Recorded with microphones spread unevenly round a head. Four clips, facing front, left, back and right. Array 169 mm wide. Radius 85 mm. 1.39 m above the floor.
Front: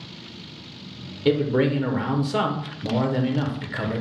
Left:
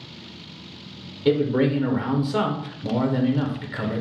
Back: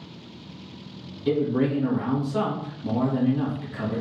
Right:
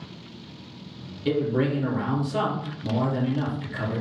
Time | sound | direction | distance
1.2 | a man speaking | 25° left | 0.9 m